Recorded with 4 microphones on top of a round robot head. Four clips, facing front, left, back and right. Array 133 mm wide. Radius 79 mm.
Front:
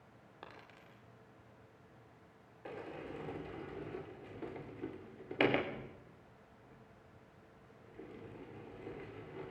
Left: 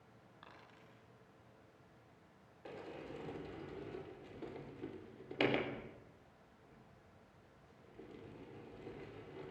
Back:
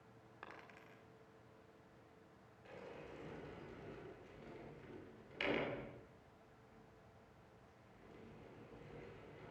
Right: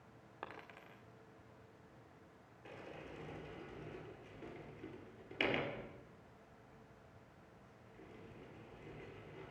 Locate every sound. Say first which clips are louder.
0.4 s a dropped coin: right 9 dB, front 2 dB; 65° right, 2.5 m
2.6 s a sliding door: left 3 dB, front 8 dB; 20° left, 3.5 m